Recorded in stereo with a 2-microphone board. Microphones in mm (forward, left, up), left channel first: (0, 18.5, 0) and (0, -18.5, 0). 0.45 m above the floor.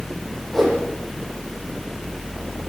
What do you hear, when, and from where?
0.5 s a whoosh: 5° left (ahead or behind), 9 m